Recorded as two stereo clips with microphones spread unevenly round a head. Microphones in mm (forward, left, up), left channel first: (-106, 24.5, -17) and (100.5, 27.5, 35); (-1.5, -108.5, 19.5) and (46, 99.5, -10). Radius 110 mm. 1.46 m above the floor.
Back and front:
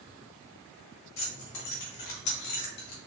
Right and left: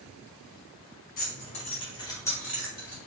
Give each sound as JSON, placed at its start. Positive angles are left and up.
{"t": 1.2, "sound": "keys jangling", "azimuth_deg": -150, "distance_m": 1.6}